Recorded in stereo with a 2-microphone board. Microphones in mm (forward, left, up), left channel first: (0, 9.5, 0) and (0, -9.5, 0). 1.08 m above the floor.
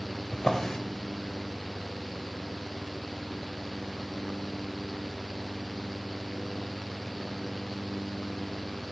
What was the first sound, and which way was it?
A drawer, 30° left (ahead or behind).